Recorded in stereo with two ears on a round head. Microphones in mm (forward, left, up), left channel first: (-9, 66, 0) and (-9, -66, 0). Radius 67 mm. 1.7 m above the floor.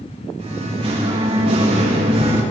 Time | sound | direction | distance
0.4 | singing | 45° right (ahead or behind) | 2.5 m